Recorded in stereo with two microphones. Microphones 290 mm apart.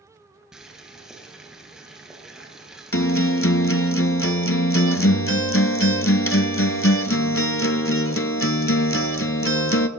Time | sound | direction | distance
0.5 | boiling | centre (ahead or behind) | 1.7 m
2.9 | a guitar | 50° left (ahead or behind) | 0.5 m